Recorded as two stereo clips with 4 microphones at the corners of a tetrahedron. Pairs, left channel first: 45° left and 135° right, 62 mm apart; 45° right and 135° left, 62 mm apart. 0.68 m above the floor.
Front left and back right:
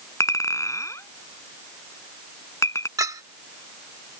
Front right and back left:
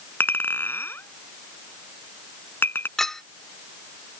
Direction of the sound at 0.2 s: 10° left.